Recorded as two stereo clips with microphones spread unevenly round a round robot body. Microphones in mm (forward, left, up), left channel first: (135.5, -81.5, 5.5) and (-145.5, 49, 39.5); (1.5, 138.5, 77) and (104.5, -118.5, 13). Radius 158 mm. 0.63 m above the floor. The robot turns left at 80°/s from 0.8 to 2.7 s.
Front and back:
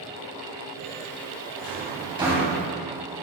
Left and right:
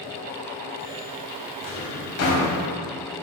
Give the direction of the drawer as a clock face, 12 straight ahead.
8 o'clock.